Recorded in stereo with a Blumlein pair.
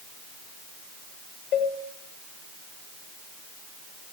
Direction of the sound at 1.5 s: 45° left.